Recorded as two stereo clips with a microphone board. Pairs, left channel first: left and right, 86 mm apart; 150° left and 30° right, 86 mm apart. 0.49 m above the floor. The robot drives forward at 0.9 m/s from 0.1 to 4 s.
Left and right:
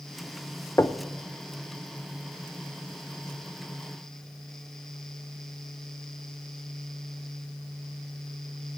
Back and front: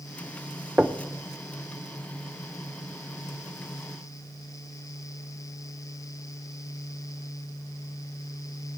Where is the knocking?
40° left, 0.6 m; by 1.0 s 55° left, 0.5 m.